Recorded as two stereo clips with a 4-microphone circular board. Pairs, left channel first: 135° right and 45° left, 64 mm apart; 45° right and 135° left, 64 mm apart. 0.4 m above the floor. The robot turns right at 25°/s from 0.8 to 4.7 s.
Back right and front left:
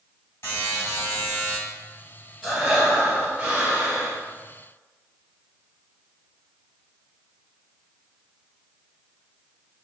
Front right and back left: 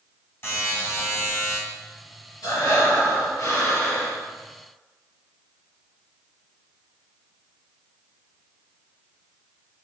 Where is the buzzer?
90° right, 1.7 m; by 1.6 s 70° right, 1.7 m.